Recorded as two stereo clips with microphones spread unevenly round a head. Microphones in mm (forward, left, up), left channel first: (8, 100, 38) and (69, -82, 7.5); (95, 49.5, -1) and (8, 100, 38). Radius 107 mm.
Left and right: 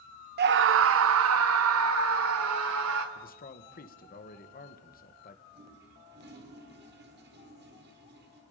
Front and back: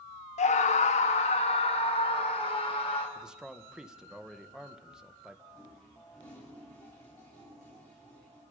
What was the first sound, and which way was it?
A scream, 30° right.